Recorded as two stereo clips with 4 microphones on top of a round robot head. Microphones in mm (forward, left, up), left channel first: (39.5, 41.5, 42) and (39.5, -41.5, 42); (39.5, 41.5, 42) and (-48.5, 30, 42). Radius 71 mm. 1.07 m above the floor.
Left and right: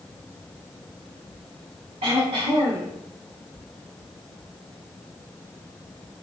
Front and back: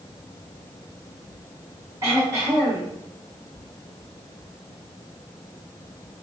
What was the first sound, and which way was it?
Throat clearing, 105° right.